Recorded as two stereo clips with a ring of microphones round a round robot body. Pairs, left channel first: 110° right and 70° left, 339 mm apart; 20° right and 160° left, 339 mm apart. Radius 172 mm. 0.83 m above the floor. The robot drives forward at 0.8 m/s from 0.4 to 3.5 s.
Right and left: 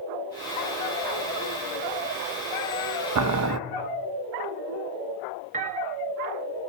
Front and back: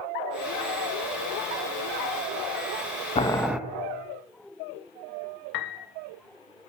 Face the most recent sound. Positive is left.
turn(degrees=0)